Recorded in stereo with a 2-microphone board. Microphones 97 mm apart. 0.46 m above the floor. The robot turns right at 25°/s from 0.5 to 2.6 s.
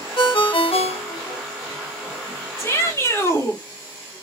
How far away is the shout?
About 1.6 m.